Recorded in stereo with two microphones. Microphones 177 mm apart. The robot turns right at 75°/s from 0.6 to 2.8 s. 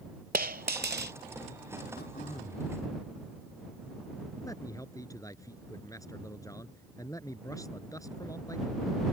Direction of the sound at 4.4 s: 20° left (ahead or behind).